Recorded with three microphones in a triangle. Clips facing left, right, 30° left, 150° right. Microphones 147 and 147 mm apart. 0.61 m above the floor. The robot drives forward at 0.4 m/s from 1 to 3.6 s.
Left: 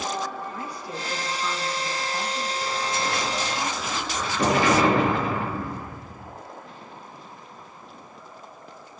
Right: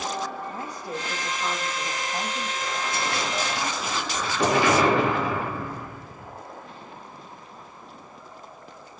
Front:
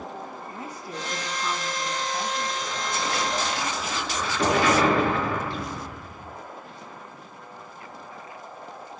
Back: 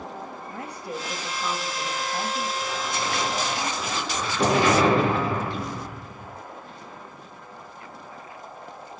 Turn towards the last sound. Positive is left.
turn(degrees=155)